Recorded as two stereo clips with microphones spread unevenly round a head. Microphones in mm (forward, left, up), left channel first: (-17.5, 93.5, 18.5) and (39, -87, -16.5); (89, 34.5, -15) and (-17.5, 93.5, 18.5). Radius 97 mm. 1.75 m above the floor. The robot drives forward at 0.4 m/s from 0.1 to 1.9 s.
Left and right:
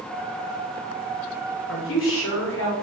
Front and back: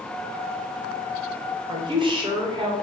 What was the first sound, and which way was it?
A woman speaking, 105° left.